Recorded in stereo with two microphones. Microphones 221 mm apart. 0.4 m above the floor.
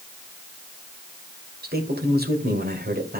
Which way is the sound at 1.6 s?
45° right (ahead or behind).